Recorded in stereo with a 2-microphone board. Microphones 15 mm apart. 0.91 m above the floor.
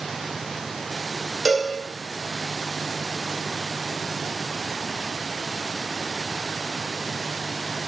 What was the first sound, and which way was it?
A cowbell, 20° right (ahead or behind).